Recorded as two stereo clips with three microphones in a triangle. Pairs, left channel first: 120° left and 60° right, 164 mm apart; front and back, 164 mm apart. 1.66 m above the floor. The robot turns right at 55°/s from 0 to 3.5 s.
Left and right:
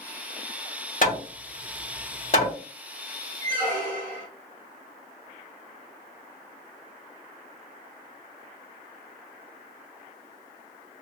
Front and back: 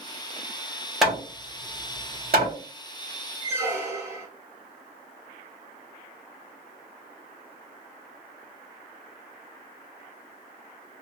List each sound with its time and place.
1.0 s hammering: 90° left, 1.6 m; by 2.5 s 175° left, 1.6 m
3.4 s a squeak: 130° right, 1.4 m; by 4.3 s 125° right, 1.4 m